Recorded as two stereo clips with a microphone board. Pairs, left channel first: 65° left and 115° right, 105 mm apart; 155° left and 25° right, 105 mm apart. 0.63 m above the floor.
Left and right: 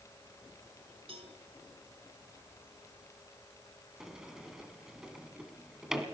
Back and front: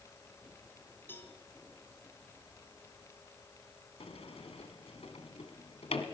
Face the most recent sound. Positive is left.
turn(degrees=165)